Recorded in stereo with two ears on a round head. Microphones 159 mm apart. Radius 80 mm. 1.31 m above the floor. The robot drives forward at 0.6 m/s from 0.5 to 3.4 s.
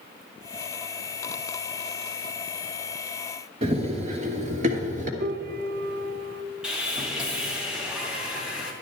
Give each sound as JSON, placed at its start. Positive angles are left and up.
{"t": 3.6, "sound": "running footsteps", "side_deg": -30, "distance_m": 1.6}
{"t": 5.2, "sound": "a piano", "side_deg": -50, "distance_m": 0.5}
{"t": 6.6, "sound": "sawing", "side_deg": -5, "distance_m": 2.5}